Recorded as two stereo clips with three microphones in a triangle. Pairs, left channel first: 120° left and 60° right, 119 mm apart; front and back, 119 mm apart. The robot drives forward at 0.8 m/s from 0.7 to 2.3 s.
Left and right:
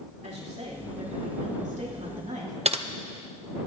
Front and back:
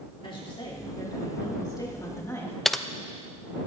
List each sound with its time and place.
0.2 s a woman speaking: 45° right, 3 m; by 2.5 s 65° right, 2.5 m
2.6 s typing on a keyboard: 90° right, 0.5 m